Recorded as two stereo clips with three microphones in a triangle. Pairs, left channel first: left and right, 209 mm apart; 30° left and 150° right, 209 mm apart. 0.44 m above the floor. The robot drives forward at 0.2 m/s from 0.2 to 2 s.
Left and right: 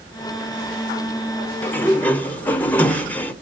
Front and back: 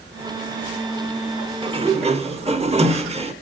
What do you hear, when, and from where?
1.6 s a sliding door: 165° left, 0.6 m; by 3.3 s 170° left, 0.7 m